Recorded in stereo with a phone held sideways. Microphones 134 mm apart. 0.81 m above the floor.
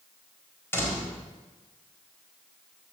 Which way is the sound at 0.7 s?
20° left (ahead or behind).